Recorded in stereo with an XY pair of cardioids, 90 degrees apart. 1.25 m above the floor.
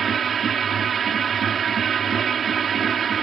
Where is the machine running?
60° right.